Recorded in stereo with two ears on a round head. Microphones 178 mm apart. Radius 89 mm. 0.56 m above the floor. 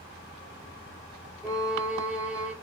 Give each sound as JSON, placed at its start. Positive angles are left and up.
{"t": 1.4, "sound": "a violin", "side_deg": -5, "distance_m": 1.5}